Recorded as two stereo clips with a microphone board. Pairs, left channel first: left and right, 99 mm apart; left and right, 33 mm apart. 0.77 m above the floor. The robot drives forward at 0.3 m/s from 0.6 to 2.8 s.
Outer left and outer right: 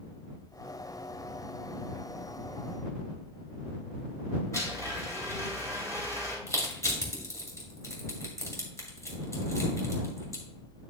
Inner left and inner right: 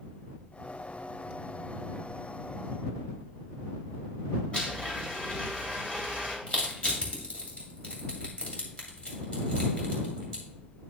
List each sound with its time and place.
4.5 s a blender: 30° left (ahead or behind), 3 m
6.5 s crushing: 30° left (ahead or behind), 2.5 m